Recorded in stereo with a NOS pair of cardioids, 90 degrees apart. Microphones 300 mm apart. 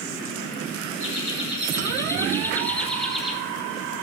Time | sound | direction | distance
1.0 | laughter | 25° left | 2.5 m